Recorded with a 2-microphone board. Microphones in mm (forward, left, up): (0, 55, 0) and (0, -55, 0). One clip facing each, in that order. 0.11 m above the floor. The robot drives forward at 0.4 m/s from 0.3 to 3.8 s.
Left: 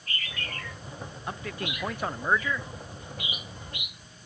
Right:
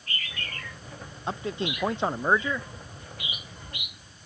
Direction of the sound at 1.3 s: 25° right (ahead or behind).